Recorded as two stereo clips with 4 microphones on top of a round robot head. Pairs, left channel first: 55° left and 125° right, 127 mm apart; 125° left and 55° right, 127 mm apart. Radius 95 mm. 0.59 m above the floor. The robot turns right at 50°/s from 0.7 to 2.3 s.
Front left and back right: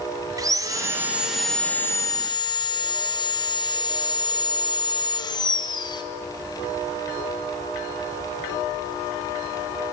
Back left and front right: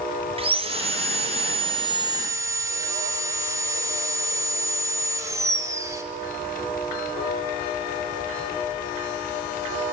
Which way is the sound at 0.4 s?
75° right.